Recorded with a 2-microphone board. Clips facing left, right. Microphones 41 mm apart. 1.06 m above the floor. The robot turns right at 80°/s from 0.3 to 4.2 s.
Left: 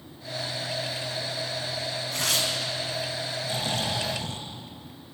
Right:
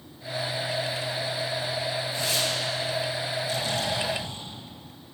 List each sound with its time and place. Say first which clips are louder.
2.1 s tearing paper: left 3 dB; 90° left, 7 m; by 2.5 s 125° left, 7 m
3.4 s snoring: left 1 dB; 30° left, 4.5 m; by 4.5 s 95° left, 4.5 m